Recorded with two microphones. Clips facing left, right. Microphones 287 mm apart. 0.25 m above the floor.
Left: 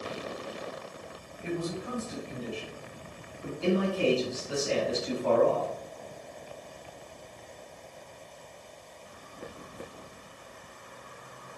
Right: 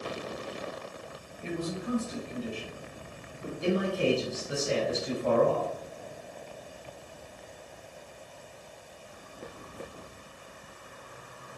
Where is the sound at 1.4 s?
30° right (ahead or behind), 1.1 m; by 3.5 s 25° left (ahead or behind), 1.6 m.